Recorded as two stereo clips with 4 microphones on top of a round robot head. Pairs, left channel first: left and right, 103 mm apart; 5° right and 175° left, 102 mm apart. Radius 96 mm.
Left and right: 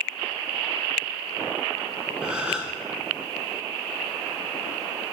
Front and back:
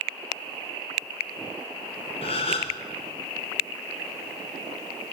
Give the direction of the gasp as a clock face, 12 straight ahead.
12 o'clock.